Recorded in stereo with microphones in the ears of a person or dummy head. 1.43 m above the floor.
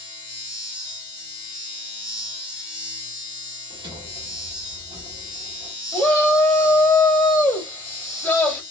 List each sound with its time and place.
0.0 s a machine running: 25° left (ahead or behind), 1.6 m
3.7 s a sliding door: 20° right (ahead or behind), 1.1 m
5.9 s a shout: 5° left (ahead or behind), 0.7 m